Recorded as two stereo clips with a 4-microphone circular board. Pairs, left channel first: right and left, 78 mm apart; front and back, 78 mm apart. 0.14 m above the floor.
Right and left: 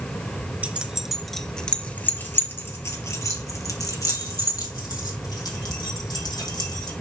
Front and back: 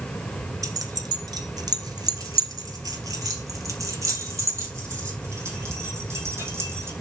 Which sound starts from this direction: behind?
Keys jangling, at 0.6 s.